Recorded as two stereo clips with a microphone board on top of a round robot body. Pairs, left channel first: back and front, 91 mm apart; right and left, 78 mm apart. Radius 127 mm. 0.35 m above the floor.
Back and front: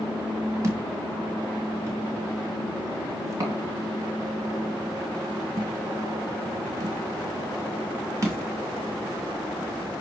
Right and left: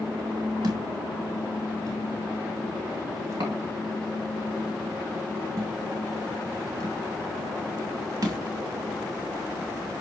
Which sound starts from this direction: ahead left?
A thud, at 0.6 s.